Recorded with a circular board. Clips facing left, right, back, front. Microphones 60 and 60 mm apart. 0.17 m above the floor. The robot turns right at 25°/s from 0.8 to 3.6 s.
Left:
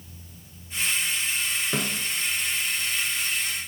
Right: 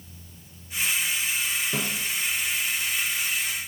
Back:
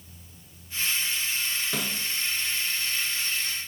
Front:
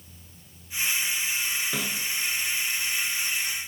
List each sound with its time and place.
1.7 s a snare drum: 90° left, 1.1 m; by 2.0 s 100° left, 1.1 m